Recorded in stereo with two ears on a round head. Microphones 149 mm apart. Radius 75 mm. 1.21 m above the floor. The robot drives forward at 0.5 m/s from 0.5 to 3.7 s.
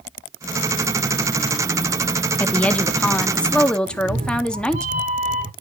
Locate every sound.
2.4 s a woman speaking: 10° left (ahead or behind), 1.1 m; by 4.9 s 5° left (ahead or behind), 1.7 m
3.9 s a cat meowing: 45° right (ahead or behind), 1.4 m